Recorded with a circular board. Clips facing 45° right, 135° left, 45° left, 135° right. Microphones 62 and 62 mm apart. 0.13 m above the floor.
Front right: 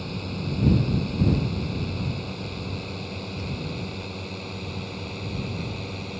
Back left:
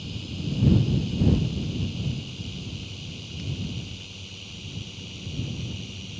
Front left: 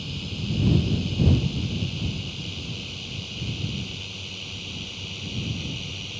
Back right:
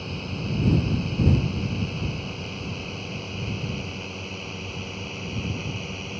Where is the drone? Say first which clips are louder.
Front right 3 dB, back right 2 dB; 80° right; by 6.2 s 75° right.